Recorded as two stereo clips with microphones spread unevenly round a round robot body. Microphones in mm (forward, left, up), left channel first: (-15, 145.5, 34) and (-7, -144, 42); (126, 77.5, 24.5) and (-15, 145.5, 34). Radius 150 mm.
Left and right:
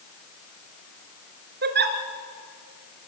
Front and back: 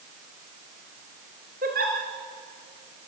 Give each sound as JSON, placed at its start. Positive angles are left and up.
{"t": 1.6, "sound": "a giggle", "azimuth_deg": -145, "distance_m": 1.8}